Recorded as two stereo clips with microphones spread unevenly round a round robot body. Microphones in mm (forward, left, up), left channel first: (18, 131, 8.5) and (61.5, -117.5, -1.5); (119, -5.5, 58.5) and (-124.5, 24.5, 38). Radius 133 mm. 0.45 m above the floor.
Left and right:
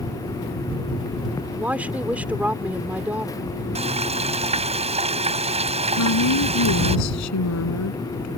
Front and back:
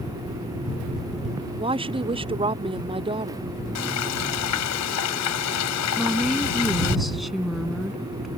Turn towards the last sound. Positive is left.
turn(degrees=85)